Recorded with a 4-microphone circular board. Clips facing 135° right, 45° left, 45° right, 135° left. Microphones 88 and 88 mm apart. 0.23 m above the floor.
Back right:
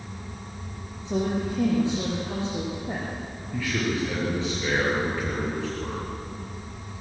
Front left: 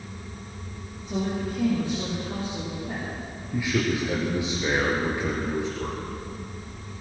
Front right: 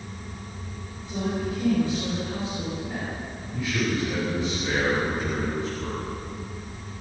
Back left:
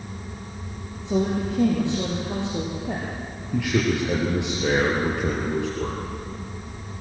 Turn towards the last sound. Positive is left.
turn(degrees=120)